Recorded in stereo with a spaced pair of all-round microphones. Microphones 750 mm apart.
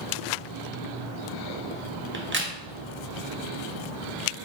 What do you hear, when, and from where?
2.1 s a crack: 15° right (ahead or behind), 0.6 m